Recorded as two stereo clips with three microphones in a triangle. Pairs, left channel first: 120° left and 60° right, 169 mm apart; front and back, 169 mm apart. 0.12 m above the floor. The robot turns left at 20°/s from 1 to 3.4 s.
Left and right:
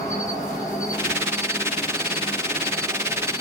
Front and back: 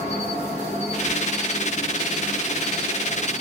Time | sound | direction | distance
0.0 | an insect | 50° left | 1.0 m